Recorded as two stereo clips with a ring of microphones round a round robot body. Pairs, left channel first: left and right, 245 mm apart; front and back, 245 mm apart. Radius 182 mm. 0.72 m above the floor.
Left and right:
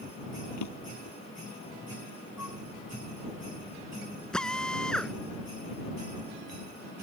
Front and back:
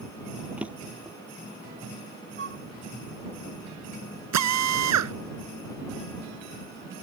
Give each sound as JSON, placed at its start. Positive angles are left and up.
{"t": 0.6, "sound": "a drawer", "azimuth_deg": 95}
{"t": 2.4, "sound": "a flute", "azimuth_deg": 140}
{"t": 4.3, "sound": "a drill", "azimuth_deg": 180}